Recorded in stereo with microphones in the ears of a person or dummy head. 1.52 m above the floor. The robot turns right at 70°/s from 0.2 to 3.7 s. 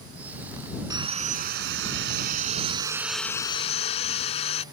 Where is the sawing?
155° right; by 4.6 s 40° left.